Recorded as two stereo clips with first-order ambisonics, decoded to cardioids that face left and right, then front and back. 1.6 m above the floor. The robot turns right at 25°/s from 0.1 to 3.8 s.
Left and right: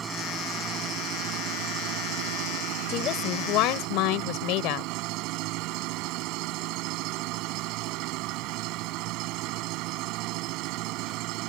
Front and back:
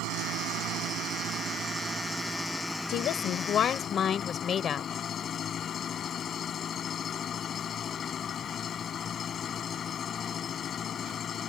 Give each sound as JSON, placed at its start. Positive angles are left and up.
{"t": 0.0, "sound": "an engine running", "azimuth_deg": -155}
{"t": 2.9, "sound": "a woman speaking", "azimuth_deg": 40}